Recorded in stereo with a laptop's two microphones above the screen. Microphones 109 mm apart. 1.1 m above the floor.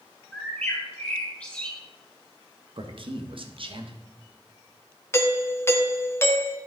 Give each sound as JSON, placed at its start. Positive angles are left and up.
{"t": 0.3, "sound": "a bird", "side_deg": 10, "distance_m": 3.5}
{"t": 2.8, "sound": "a man speaking", "side_deg": -55, "distance_m": 1.3}
{"t": 5.1, "sound": "a doorbell", "side_deg": 25, "distance_m": 1.1}